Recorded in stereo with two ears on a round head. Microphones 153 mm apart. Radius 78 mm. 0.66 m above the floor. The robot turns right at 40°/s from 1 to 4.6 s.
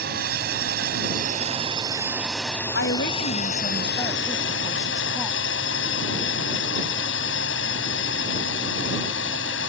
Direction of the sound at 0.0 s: 55° right.